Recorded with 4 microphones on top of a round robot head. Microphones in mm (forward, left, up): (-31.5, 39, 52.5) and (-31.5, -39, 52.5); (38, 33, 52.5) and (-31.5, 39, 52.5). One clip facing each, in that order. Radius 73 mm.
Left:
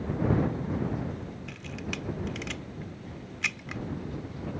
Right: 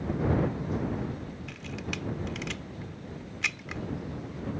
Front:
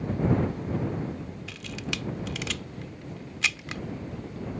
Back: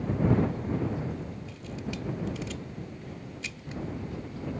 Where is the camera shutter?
Straight ahead.